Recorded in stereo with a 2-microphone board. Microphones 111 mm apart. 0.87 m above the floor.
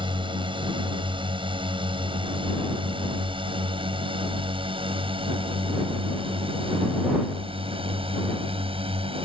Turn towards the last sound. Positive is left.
turn(degrees=-55)  # may be behind; listen again after turning